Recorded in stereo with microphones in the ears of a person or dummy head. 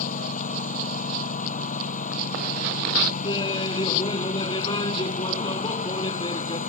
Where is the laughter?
25° left (ahead or behind).